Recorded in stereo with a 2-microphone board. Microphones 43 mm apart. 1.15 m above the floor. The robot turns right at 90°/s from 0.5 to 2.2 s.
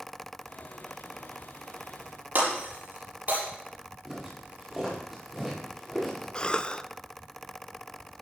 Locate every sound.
2.4 s breaking glass: 45° right (ahead or behind), 7 m
4.0 s footsteps: 15° right (ahead or behind), 7.5 m; by 6.2 s centre (ahead or behind), 8.5 m
6.3 s a cough: 25° left (ahead or behind), 0.6 m